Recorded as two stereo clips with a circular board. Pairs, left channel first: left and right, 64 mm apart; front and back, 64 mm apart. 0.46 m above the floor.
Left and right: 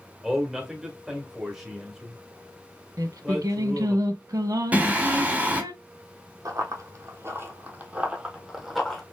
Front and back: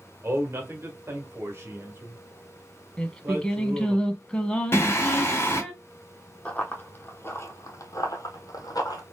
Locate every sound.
0.2 s a man speaking: 170° right, 1.3 m
3.0 s singing: 75° right, 0.8 m
4.7 s singing: 30° right, 1.5 m
6.5 s running footsteps: 70° right, 1.2 m; by 9.0 s 5° left, 1.3 m